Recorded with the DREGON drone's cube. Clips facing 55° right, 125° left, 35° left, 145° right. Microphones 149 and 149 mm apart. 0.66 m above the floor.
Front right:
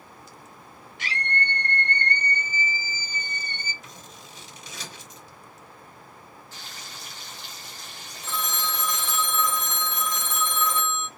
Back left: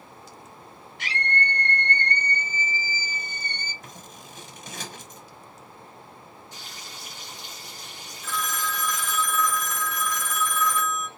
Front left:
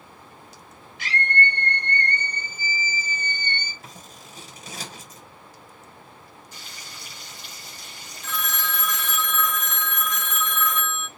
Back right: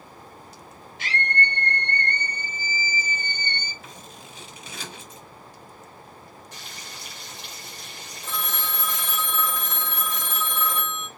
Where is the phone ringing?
105° right, 0.5 m.